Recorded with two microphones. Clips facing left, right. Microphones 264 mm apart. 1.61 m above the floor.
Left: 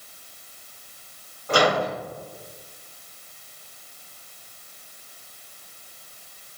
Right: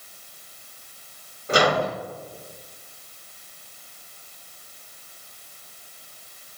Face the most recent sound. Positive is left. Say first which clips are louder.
# even
turn(degrees=-20)  # may be behind; listen again after turning